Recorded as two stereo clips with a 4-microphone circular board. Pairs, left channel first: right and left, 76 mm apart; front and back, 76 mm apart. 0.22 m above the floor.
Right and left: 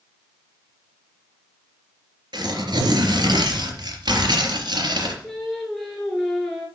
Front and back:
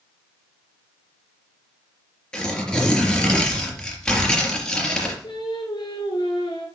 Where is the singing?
Straight ahead, 5 m.